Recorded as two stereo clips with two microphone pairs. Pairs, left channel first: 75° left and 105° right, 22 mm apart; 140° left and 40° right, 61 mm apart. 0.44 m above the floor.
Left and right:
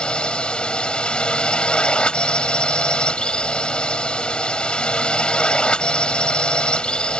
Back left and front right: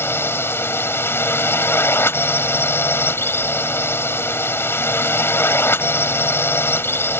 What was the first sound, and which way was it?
A drone, 100° left.